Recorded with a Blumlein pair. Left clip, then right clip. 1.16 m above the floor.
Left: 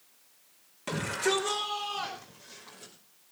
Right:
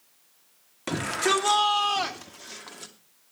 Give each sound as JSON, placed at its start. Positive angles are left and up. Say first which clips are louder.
{"t": 0.9, "sound": "a shout", "louder": "right 4 dB", "azimuth_deg": -20, "distance_m": 2.5}